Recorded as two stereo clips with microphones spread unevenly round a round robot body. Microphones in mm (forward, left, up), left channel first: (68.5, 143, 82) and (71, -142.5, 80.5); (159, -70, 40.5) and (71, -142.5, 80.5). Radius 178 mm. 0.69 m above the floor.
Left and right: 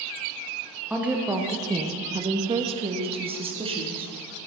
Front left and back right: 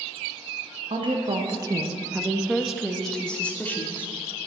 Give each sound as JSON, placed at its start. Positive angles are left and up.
{"t": 0.9, "sound": "a woman speaking", "azimuth_deg": -170, "distance_m": 1.2}